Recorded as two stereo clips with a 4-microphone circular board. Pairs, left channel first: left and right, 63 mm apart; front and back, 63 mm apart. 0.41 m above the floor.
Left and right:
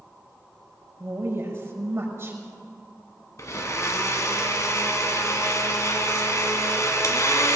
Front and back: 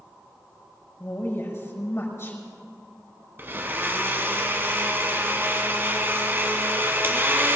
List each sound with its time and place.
1.0 s a woman speaking: 45° right, 5.5 m
3.4 s a blender: 125° left, 1.6 m